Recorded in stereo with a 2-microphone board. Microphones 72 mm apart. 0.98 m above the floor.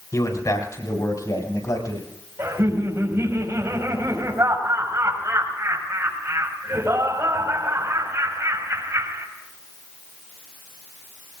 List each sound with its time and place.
0.1 s a man speaking: 50° left (ahead or behind), 5 m; by 2.1 s 60° left (ahead or behind), 6.5 m
2.4 s laughter: 40° right (ahead or behind), 5.5 m